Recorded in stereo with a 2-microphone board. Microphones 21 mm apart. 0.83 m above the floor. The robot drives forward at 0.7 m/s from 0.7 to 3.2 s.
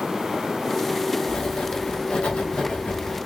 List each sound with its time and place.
1.3 s writing: 75° left (ahead or behind), 2.0 m; by 3.2 s 60° left (ahead or behind), 2 m